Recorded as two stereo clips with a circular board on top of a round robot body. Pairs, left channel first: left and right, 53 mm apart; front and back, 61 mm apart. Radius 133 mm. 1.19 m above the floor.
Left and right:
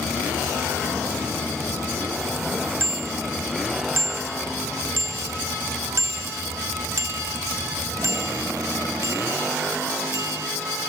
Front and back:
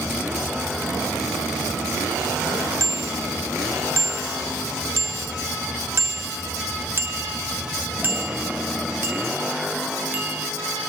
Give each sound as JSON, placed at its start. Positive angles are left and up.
{"t": 2.8, "sound": "a bicycle bell", "azimuth_deg": -140}